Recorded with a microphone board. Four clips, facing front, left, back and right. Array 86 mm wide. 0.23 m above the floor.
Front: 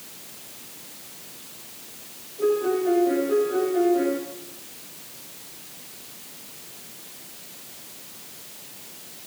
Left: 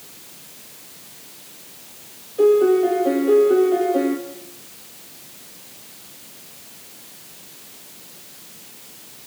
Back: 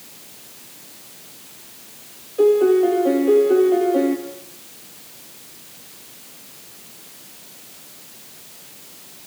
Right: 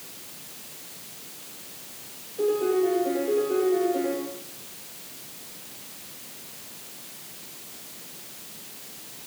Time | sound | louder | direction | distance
2.4 | a piano | left 9 dB, back 8 dB | 150° left | 7 m